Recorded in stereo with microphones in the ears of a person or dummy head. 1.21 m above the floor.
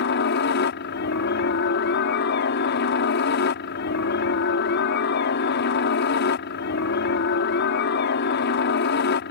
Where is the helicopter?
55° left (ahead or behind).